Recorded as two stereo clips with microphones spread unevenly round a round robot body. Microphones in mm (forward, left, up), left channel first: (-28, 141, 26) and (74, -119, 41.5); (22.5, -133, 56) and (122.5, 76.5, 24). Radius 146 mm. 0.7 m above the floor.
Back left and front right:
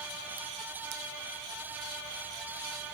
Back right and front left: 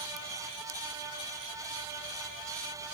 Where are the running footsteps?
I don't hear running footsteps.